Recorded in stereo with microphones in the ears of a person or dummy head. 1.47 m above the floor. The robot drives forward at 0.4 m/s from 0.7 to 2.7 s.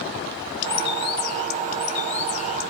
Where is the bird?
50° left (ahead or behind), 1.2 m; by 2.7 s 35° left (ahead or behind), 1.6 m.